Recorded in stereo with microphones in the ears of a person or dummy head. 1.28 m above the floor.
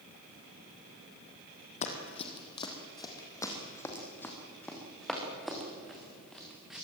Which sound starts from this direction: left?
Running footsteps, at 1.8 s.